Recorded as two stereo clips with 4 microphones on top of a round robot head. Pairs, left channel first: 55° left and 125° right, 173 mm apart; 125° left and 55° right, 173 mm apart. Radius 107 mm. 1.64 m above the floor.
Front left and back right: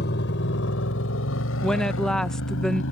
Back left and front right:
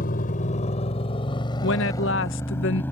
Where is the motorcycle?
85° left; by 2.9 s 45° left.